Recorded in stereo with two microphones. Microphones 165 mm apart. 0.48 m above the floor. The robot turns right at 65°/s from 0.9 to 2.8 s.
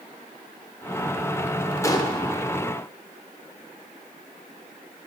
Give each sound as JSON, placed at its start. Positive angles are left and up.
{"t": 1.8, "sound": "a gunshot", "side_deg": 20, "distance_m": 0.5}